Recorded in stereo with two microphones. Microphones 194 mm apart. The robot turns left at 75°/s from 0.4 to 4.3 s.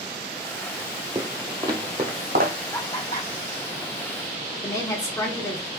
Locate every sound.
1.1 s footsteps: 20° right (ahead or behind), 0.6 m; by 2.5 s 65° right (ahead or behind), 1.4 m
2.7 s laughter: 20° left (ahead or behind), 1.5 m; by 3.3 s 55° left (ahead or behind), 1.5 m
4.6 s a woman speaking: 20° left (ahead or behind), 0.8 m